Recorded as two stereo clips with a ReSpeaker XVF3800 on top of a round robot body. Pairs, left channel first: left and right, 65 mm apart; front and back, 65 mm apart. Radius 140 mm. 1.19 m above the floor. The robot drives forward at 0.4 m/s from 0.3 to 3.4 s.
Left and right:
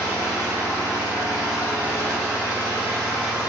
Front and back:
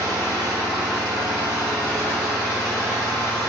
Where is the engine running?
150° left, 0.8 m; by 3.5 s 175° left, 1.7 m.